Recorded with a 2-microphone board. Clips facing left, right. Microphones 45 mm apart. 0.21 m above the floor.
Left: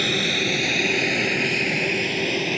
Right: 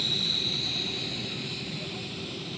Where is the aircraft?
65° left (ahead or behind); by 2.6 s 70° left (ahead or behind).